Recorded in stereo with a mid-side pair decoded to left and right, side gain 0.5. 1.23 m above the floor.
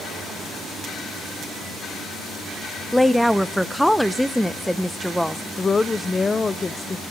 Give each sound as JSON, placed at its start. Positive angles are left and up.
{"t": 2.9, "sound": "a woman speaking", "azimuth_deg": 0, "distance_m": 0.8}
{"t": 5.6, "sound": "a woman speaking", "azimuth_deg": 25, "distance_m": 0.9}